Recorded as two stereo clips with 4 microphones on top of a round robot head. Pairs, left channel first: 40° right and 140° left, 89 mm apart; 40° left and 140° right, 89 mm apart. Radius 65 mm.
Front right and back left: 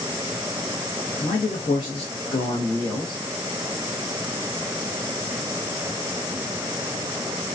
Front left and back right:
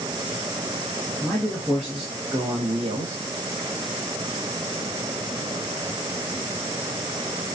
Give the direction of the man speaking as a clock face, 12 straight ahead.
1 o'clock.